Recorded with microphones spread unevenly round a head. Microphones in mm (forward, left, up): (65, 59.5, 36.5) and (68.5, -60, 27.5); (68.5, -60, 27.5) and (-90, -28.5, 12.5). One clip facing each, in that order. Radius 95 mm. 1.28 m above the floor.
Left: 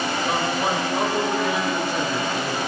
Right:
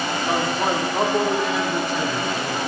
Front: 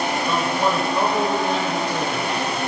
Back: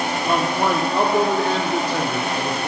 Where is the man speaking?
150° right, 2.5 m; by 2.7 s straight behind, 3.5 m.